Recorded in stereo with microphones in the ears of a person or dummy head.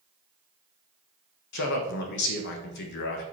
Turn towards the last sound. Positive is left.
turn(degrees=55)  # may be behind; listen again after turning